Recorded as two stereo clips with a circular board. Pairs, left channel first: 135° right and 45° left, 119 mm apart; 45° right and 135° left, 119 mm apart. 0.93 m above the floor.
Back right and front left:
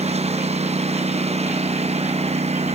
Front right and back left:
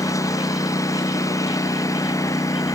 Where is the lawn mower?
20° left.